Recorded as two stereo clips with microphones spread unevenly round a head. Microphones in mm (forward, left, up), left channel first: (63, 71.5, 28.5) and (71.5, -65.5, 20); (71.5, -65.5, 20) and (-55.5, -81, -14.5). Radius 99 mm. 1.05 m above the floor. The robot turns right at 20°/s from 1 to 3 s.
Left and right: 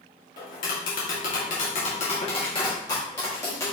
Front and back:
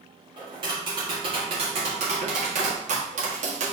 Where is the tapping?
125° left, 1.8 m; by 3.7 s 165° left, 1.8 m.